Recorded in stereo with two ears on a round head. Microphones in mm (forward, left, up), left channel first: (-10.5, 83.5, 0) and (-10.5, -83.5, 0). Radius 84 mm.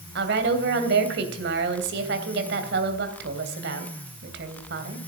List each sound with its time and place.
0.1 s a woman speaking: 65° right (ahead or behind), 3 m